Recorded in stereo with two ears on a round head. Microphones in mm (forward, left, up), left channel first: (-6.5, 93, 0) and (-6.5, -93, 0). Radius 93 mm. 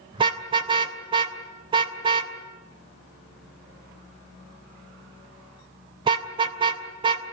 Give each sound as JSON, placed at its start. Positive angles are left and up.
{"t": 0.1, "sound": "a car horn", "side_deg": -25, "distance_m": 3.0}